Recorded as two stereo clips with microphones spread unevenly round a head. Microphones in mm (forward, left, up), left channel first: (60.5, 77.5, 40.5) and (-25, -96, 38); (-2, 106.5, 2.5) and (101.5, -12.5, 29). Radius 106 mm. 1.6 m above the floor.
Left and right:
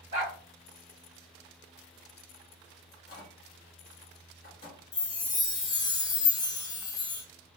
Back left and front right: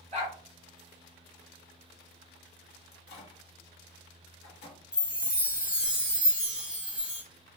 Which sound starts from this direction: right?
A dog barking, at 0.1 s.